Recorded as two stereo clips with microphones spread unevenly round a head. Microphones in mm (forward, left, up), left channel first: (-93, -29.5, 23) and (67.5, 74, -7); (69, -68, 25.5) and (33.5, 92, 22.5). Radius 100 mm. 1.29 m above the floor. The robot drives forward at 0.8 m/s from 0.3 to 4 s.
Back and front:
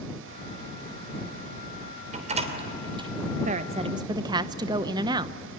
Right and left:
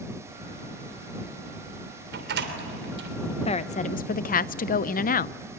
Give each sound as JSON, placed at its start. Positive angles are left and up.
{"t": 2.1, "sound": "a door slam", "azimuth_deg": 85, "distance_m": 3.0}
{"t": 3.5, "sound": "a woman speaking", "azimuth_deg": -25, "distance_m": 1.1}